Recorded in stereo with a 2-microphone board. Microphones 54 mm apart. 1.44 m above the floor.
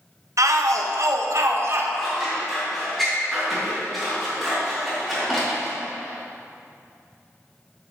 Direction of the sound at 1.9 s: Centre (ahead or behind).